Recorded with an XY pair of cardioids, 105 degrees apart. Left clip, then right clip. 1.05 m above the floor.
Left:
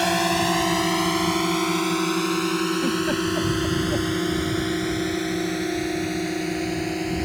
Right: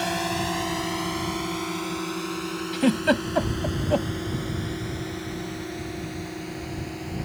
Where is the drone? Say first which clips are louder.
Left 6 dB; 40° left; by 7.3 s 60° left.